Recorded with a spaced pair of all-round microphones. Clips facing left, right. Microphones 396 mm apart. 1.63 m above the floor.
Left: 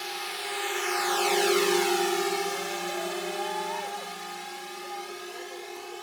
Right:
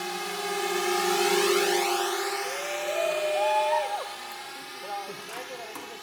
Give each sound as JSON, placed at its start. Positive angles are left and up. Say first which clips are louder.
{"t": 0.0, "sound": "a drone", "louder": "right 6 dB", "side_deg": -60}
{"t": 2.4, "sound": "a shout", "louder": "even", "side_deg": -80}